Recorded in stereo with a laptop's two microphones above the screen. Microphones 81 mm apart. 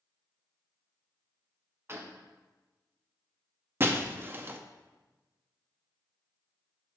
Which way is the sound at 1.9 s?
30° right (ahead or behind).